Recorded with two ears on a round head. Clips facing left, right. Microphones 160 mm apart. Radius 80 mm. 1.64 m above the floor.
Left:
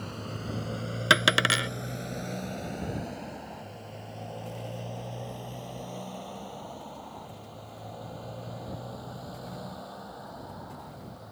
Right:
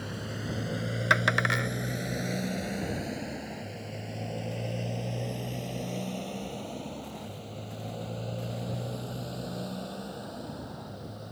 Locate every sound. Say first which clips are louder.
0.0 s a motorcycle: right 1 dB; 10° right (ahead or behind); by 11.3 s 35° right (ahead or behind)
1.1 s a dropped coin: left 4 dB; 45° left (ahead or behind)